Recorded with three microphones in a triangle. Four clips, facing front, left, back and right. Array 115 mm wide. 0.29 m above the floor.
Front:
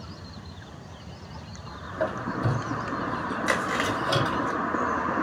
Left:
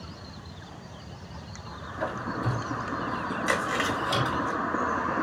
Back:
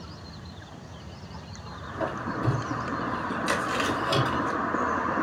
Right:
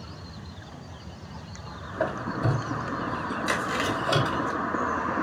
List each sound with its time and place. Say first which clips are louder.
1.9 s a squeak: right 3 dB, front 2 dB; 70° right, 1.6 m
3.5 s chewing: even, front 1 dB; 25° left, 1.3 m